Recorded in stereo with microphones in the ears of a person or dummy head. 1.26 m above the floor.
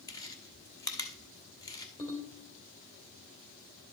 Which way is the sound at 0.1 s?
15° left (ahead or behind).